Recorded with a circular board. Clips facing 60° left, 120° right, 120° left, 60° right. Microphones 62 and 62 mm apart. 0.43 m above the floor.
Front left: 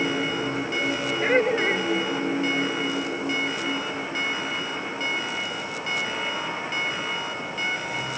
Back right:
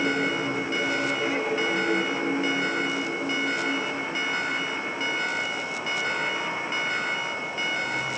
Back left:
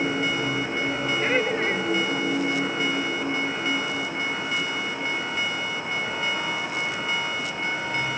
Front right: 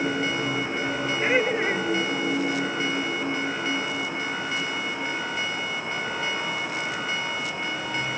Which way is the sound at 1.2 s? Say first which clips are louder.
Front left 5 dB, front right 2 dB; 20° left.